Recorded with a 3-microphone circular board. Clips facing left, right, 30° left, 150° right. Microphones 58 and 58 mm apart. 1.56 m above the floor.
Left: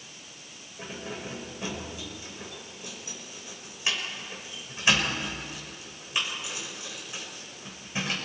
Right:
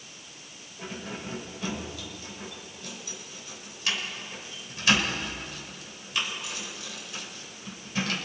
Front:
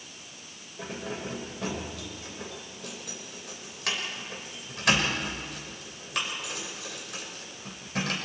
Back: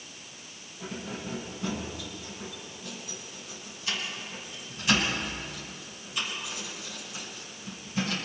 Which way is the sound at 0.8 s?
25° left.